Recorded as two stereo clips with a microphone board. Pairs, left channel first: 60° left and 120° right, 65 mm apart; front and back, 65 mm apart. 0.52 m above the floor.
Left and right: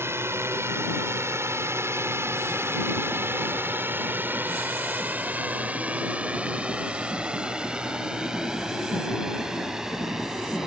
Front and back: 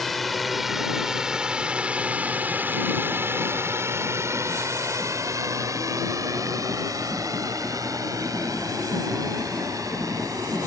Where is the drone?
85° right; by 10.7 s 155° left.